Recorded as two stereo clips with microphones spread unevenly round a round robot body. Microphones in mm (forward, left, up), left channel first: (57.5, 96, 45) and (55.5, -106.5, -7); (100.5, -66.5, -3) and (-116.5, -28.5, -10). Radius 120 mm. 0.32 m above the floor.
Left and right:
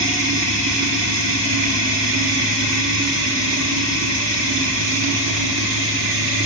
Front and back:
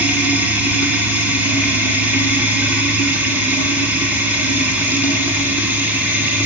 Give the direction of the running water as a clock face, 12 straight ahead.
4 o'clock.